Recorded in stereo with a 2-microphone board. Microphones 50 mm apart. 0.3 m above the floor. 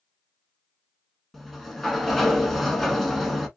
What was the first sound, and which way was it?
A sliding door, centre (ahead or behind).